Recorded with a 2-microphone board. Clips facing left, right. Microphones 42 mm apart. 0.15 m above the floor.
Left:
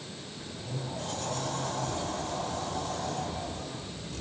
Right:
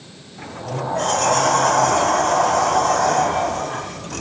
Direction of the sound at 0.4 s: 70° right (ahead or behind).